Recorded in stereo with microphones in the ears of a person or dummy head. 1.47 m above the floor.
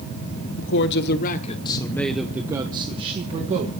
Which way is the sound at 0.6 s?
70° left (ahead or behind).